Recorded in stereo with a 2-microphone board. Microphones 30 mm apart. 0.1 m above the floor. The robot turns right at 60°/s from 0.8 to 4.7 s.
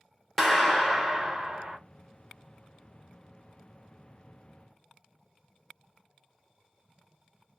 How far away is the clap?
About 1.0 m.